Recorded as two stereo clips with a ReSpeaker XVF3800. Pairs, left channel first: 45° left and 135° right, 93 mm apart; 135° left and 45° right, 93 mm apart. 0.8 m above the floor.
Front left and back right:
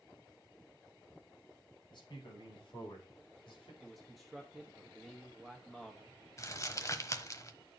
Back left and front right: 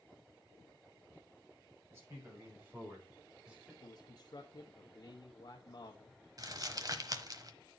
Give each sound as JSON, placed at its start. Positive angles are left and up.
{"t": 1.9, "sound": "a man speaking", "azimuth_deg": 15, "distance_m": 6.0}
{"t": 3.8, "sound": "a man speaking", "azimuth_deg": 135, "distance_m": 0.9}
{"t": 6.4, "sound": "crumpling", "azimuth_deg": -5, "distance_m": 1.1}